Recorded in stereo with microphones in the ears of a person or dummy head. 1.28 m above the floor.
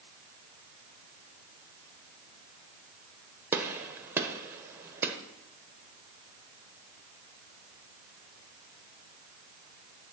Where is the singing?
No singing in this recording.